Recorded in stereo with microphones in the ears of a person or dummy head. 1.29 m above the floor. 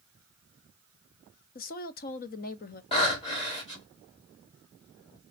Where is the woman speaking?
40° left (ahead or behind), 0.5 m.